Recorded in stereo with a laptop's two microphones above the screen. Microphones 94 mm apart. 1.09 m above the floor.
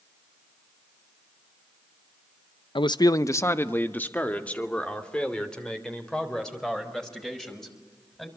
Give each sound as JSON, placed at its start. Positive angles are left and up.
{"t": 2.8, "sound": "a man speaking", "side_deg": 60, "distance_m": 0.6}